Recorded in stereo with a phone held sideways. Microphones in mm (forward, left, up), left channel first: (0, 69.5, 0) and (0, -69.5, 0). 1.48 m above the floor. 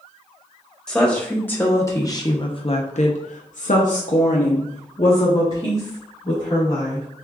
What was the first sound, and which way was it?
A woman speaking, 5° left (ahead or behind).